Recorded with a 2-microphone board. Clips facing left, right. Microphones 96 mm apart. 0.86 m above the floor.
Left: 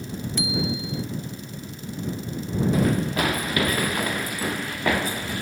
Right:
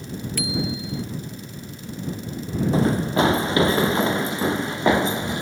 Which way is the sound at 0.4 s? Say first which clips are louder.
Even; 20° left (ahead or behind).